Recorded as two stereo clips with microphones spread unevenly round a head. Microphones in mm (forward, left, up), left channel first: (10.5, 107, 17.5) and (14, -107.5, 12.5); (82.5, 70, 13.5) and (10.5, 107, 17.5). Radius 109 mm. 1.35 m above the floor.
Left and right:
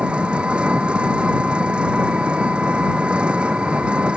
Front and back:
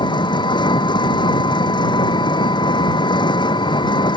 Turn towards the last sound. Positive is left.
turn(degrees=-5)